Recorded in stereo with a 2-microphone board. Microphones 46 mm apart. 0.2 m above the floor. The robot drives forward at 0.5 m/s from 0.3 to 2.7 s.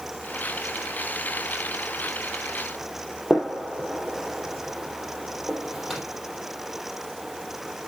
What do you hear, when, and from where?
3.3 s a gunshot: 5° left (ahead or behind), 3.5 m